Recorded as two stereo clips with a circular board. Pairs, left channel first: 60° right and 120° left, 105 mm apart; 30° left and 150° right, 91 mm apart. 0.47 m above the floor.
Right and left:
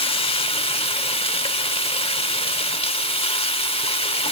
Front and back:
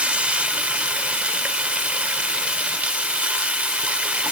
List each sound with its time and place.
0.0 s running water: 75° right, 0.8 m